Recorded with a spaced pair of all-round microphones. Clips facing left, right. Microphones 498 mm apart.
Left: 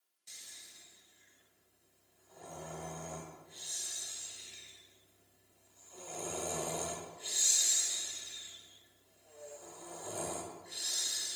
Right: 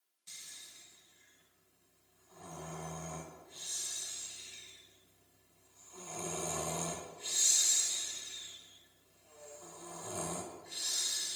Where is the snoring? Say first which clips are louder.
Left 1 dB; 25° right (ahead or behind), 0.8 m.